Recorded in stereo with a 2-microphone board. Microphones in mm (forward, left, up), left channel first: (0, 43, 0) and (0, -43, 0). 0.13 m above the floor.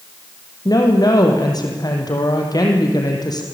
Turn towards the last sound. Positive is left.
turn(degrees=50)  # may be behind; listen again after turning